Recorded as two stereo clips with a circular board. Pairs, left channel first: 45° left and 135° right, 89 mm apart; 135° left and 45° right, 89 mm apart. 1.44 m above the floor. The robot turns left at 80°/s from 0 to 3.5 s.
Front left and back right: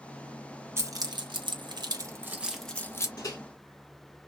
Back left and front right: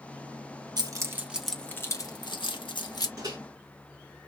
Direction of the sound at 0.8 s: 80° right.